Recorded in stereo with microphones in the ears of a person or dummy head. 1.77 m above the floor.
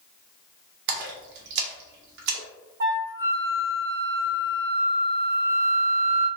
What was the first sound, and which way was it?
A splash, 60° right (ahead or behind).